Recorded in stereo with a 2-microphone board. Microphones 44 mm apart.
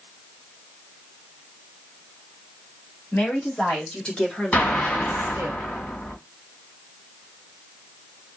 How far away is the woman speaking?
About 3 m.